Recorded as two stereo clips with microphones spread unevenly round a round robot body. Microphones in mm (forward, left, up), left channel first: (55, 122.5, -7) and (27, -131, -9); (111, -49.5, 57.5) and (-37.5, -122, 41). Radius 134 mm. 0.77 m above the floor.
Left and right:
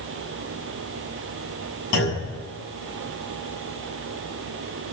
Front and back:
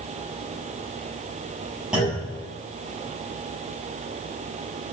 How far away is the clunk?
About 7.5 m.